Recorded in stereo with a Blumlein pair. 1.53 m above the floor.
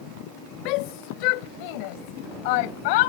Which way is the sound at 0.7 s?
40° left.